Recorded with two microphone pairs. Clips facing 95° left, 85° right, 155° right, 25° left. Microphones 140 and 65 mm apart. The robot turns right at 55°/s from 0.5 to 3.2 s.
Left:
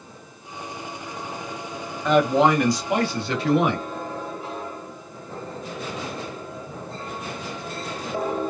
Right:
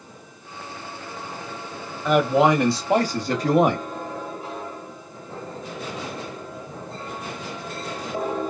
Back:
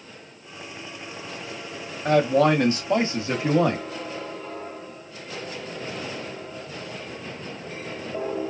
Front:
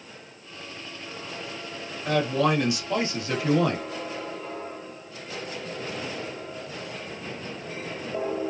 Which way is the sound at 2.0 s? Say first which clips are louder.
Even, back 5 dB; 170° right.